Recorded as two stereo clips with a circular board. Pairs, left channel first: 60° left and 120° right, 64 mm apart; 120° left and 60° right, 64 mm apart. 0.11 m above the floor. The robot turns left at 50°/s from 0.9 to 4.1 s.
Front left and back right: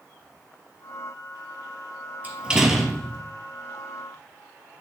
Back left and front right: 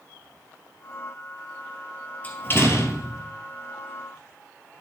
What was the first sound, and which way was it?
A door slam, straight behind.